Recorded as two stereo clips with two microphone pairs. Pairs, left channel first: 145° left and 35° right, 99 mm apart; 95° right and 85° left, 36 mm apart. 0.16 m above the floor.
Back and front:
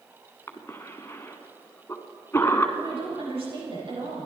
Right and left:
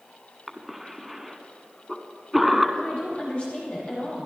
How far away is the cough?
About 1.6 m.